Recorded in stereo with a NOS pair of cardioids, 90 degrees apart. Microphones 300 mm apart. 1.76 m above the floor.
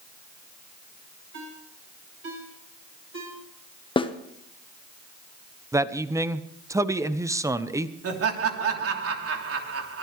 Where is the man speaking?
10° right, 1.1 m.